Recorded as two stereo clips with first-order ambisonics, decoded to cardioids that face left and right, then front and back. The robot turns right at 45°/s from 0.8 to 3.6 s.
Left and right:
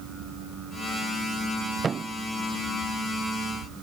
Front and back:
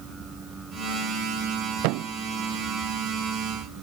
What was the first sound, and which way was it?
A thud, 160° right.